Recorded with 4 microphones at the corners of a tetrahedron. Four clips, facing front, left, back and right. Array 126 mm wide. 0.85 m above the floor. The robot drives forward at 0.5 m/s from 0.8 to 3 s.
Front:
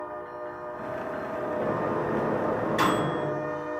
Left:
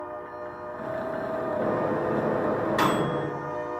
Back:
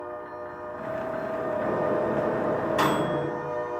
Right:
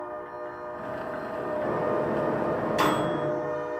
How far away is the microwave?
About 1.0 m.